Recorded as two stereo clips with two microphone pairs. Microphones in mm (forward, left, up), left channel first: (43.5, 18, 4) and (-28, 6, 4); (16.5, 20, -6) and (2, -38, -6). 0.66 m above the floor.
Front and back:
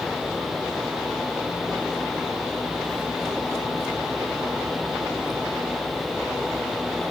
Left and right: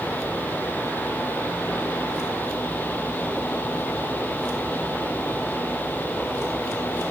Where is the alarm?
No alarm in this recording.